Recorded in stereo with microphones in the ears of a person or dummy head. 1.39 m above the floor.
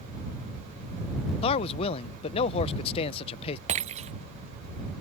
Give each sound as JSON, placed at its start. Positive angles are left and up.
{"t": 1.4, "sound": "a man speaking", "side_deg": 30}
{"t": 3.7, "sound": "breaking glass", "side_deg": -35}